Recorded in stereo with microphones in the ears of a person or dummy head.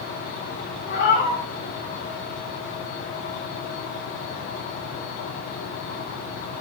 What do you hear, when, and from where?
0.9 s a cat meowing: 55° left (ahead or behind), 1.6 m